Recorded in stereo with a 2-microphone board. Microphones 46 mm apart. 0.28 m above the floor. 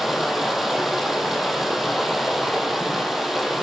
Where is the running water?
5° right (ahead or behind), 3 m.